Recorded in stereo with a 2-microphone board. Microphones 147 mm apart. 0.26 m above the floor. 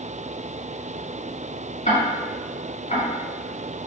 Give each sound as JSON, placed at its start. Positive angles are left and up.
{"t": 1.9, "sound": "ticking", "side_deg": 55, "distance_m": 1.2}